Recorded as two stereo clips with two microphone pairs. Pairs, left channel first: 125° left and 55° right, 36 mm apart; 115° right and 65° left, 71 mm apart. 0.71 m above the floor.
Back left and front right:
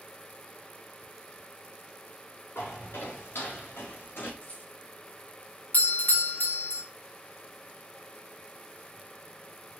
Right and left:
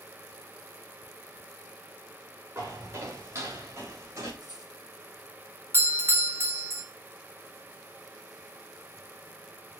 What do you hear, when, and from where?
2.5 s footsteps: 115° left, 6 m; by 4.3 s 105° left, 7 m
4.4 s a rattle: 75° left, 5.5 m
5.7 s a doorbell: 110° left, 2 m